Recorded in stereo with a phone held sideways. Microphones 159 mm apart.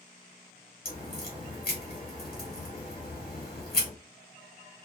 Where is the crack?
65° left (ahead or behind), 1.3 m.